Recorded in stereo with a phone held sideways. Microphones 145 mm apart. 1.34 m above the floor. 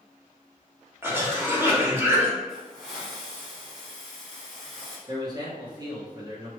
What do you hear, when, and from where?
1.0 s a cough: 15° right (ahead or behind), 1.5 m
2.5 s a hiss: centre (ahead or behind), 1.7 m
5.1 s a man speaking: 25° right (ahead or behind), 1.0 m